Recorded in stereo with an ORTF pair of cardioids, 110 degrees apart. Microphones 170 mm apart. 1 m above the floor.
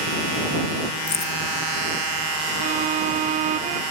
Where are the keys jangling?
40° left.